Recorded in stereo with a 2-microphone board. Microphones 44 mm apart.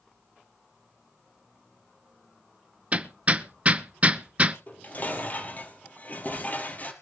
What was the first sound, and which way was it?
Hammering, 30° right (ahead or behind).